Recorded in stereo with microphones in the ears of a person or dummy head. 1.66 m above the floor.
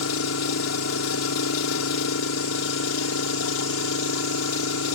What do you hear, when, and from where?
0.0 s an engine running: 80° left